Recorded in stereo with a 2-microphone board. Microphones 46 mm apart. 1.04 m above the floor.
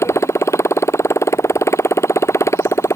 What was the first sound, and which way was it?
A motorcycle, 65° left (ahead or behind).